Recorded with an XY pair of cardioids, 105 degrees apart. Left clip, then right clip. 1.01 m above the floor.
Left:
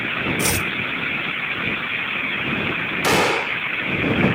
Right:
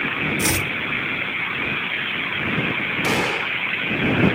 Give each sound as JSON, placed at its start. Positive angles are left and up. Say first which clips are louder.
{"t": 0.4, "sound": "chopping", "louder": "even", "azimuth_deg": 0}
{"t": 3.0, "sound": "a gunshot", "louder": "left 6 dB", "azimuth_deg": 40}